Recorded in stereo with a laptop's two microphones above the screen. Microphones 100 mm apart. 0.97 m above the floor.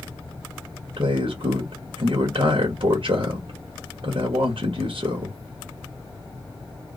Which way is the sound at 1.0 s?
70° right (ahead or behind).